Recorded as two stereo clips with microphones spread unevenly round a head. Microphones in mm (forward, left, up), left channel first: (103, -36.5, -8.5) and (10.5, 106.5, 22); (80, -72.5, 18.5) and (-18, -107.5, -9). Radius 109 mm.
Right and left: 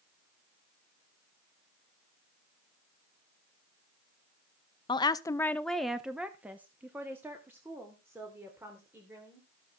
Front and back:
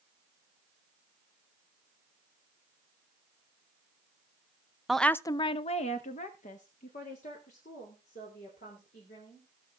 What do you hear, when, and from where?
4.9 s a woman speaking: 90° right, 0.6 m; by 9.5 s 45° left, 4 m